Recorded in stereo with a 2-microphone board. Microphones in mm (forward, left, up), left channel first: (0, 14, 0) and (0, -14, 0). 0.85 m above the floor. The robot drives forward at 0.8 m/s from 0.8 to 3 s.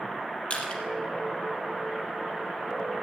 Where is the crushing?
55° left (ahead or behind), 3.5 m.